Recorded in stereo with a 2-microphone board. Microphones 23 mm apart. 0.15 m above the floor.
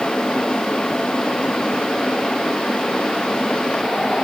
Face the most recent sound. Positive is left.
No sound to turn to.